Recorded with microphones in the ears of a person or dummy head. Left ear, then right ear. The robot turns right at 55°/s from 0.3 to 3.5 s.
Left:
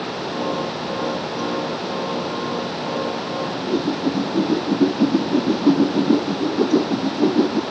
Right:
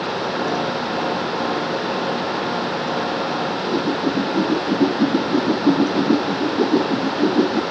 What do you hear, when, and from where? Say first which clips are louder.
3.5 s a whoosh: right 2 dB; 5° right (ahead or behind); by 7.6 s 10° right (ahead or behind)